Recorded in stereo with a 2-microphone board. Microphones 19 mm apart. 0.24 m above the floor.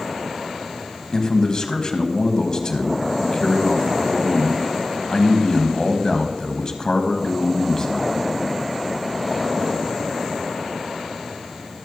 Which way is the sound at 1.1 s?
40° left (ahead or behind).